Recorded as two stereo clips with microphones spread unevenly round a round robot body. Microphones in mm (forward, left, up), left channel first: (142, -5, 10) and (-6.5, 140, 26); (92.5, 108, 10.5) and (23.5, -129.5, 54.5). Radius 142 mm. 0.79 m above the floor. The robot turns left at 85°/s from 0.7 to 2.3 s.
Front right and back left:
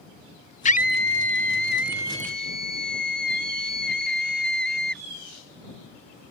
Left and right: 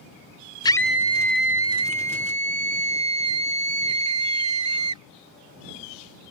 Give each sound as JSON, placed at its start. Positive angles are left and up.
{"t": 0.7, "sound": "a scream", "azimuth_deg": 5}